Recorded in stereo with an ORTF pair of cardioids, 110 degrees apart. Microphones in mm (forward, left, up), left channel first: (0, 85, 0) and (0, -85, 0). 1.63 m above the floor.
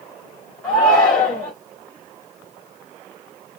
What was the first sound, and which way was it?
A shout, 10° left.